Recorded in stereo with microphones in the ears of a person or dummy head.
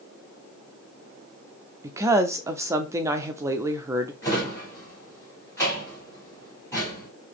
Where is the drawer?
15° left (ahead or behind), 3.5 m.